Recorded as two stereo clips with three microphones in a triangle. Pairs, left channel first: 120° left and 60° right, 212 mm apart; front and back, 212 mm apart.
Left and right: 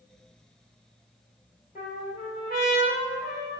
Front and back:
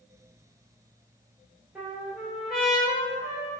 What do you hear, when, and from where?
1.8 s a trumpet: 95° left, 1.7 m